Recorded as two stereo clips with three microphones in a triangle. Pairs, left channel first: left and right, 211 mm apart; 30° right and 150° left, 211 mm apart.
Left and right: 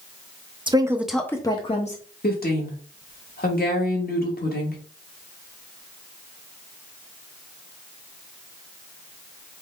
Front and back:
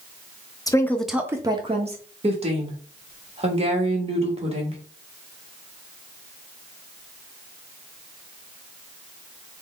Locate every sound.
0.7 s a woman speaking: 70° right, 0.6 m; by 2.0 s 115° left, 0.7 m
2.2 s a woman speaking: 100° left, 1.3 m